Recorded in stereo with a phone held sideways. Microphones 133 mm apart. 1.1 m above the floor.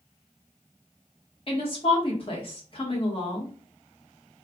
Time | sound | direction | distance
1.5 | a woman speaking | 45° left (ahead or behind) | 1.1 m